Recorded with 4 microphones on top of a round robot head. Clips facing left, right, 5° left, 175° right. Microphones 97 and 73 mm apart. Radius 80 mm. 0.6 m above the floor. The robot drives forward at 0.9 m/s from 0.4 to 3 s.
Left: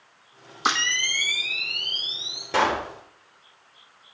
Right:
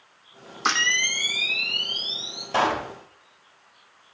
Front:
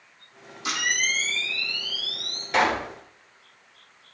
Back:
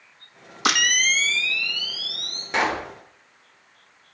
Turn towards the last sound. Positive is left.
turn(degrees=125)